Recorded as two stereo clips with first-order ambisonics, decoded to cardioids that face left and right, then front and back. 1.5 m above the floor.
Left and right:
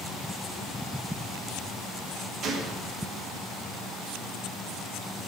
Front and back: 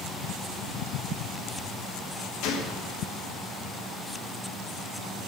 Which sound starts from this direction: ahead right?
A gunshot, at 2.4 s.